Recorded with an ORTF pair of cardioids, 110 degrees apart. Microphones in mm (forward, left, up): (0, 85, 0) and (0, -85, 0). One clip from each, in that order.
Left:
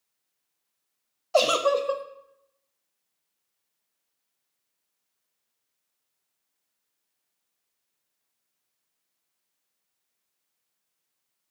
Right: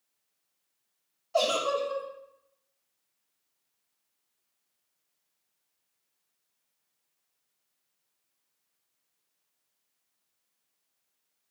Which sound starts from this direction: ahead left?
A giggle, at 1.3 s.